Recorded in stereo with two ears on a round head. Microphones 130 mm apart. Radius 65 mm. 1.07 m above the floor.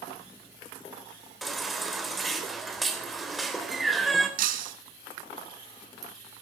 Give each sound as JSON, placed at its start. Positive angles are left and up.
{"t": 1.4, "sound": "a baby crying", "side_deg": 0, "distance_m": 3.0}
{"t": 4.4, "sound": "breaking glass", "side_deg": -65, "distance_m": 2.5}